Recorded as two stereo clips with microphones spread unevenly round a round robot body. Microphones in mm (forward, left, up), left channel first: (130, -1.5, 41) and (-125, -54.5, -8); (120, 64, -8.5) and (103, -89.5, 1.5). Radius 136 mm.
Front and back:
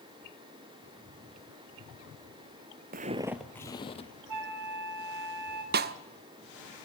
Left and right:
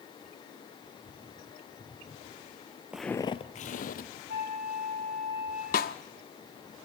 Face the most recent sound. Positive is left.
turn(degrees=130)